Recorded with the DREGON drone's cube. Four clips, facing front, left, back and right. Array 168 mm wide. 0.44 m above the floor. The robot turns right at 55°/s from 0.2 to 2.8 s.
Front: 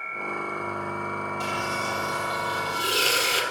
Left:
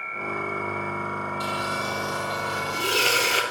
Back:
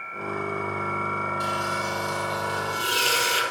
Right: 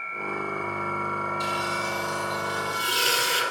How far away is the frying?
About 3 m.